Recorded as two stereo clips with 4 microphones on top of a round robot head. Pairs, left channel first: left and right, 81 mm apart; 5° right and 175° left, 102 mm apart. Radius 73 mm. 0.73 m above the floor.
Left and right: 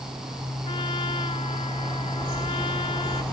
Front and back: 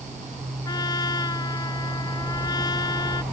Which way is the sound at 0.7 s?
45° left.